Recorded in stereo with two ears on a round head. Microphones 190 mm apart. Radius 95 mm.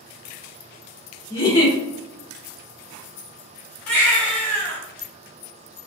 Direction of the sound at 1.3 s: 20° left (ahead or behind).